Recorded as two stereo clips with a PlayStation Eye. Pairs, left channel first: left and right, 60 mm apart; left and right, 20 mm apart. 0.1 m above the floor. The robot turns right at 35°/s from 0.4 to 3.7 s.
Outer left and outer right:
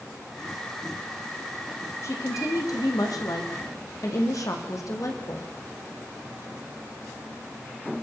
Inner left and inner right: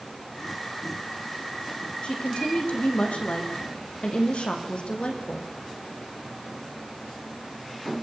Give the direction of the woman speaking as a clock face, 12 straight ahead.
10 o'clock.